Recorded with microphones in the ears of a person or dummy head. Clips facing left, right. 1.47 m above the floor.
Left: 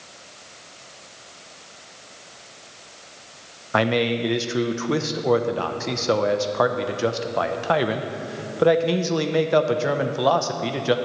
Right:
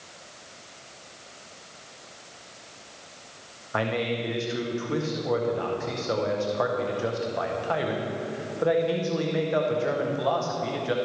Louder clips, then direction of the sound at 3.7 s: Left 6 dB; 70° left (ahead or behind).